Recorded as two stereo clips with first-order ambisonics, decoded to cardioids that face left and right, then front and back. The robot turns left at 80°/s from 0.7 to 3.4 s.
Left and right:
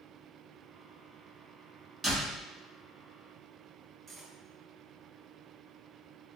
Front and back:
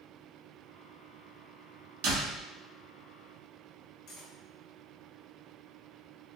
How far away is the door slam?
About 1.2 m.